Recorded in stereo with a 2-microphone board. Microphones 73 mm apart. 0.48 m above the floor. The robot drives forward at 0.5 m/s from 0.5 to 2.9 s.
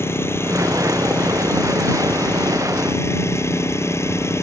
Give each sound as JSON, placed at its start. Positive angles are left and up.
{"t": 0.0, "sound": "an engine running", "side_deg": 35}